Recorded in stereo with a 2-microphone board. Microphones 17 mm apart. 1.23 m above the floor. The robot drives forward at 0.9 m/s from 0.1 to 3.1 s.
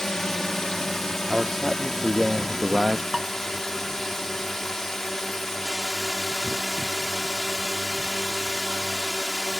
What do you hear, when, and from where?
0.0 s a drone: 40° left (ahead or behind); by 9.6 s 30° left (ahead or behind)
1.3 s a man speaking: 25° right (ahead or behind); by 3.0 s 60° right (ahead or behind)
3.1 s dishes clattering: 30° right (ahead or behind)